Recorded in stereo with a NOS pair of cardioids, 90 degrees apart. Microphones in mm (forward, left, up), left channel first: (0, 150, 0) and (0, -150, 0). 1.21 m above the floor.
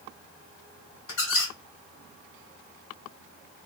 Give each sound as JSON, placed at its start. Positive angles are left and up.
{"t": 1.1, "sound": "a squeak", "azimuth_deg": 65, "distance_m": 1.4}